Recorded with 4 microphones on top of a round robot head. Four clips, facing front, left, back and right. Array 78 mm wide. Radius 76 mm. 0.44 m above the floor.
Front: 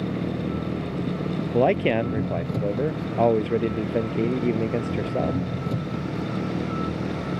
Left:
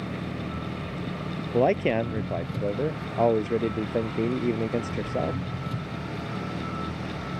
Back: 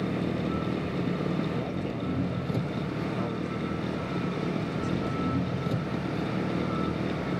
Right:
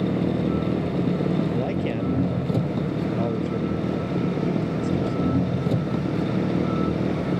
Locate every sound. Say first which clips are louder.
0.0 s an engine running: right 10 dB, front 2 dB; 90° right
1.5 s a man speaking: left 3 dB, front 12 dB; 30° left